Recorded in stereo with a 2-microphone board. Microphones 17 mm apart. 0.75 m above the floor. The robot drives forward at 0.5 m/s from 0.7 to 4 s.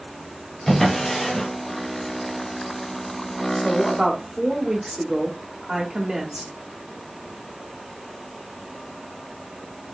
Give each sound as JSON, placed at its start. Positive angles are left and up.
{"t": 0.7, "sound": "a drawer", "side_deg": 30, "distance_m": 1.2}
{"t": 3.5, "sound": "a woman speaking", "side_deg": -40, "distance_m": 1.5}